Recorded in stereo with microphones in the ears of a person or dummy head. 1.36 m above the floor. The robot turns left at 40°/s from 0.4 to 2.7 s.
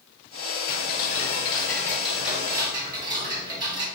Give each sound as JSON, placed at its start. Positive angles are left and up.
{"t": 0.7, "sound": "ticking", "azimuth_deg": 55, "distance_m": 0.9}